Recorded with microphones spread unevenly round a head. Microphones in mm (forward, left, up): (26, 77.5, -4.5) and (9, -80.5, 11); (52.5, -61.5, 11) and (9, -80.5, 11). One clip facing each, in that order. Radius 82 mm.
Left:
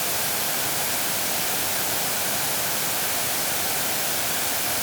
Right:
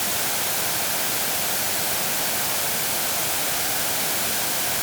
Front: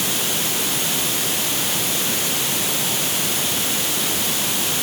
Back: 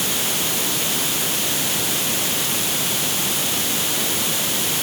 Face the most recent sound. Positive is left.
No sound to turn to.